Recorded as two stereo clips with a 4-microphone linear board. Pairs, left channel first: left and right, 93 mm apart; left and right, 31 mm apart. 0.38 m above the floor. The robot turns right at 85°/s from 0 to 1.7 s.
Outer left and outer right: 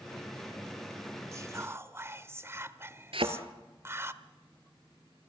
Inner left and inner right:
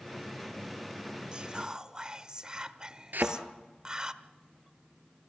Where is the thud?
80° right, 1.6 m.